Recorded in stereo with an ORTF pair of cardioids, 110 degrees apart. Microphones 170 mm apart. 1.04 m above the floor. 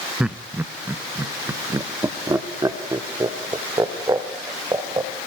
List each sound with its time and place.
0.2 s laughter: 5° right, 0.6 m; by 5.1 s 20° right, 3.5 m